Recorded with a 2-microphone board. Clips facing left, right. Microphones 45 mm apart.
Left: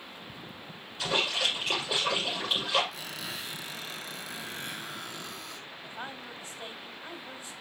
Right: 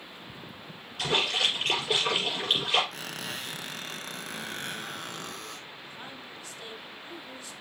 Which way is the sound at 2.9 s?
55° right (ahead or behind).